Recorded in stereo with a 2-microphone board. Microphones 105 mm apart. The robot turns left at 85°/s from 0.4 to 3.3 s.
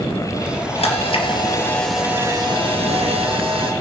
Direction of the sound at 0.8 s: 95° left.